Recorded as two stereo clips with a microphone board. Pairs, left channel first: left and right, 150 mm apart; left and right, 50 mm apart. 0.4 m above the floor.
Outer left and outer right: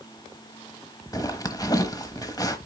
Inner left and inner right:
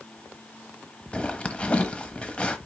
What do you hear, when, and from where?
1.1 s a zipper: 25° left (ahead or behind), 1.0 m